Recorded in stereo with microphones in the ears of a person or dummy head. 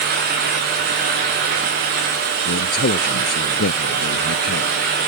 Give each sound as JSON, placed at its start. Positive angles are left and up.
{"t": 2.5, "sound": "a man speaking", "side_deg": 55}